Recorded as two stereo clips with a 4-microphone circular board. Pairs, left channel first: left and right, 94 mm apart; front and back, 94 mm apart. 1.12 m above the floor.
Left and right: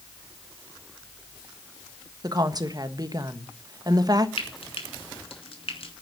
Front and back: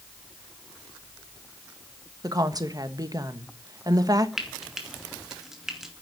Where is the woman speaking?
135° right, 1.3 m.